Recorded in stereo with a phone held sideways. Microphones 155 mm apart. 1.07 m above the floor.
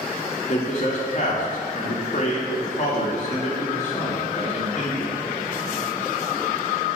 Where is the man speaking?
50° left (ahead or behind), 2 m.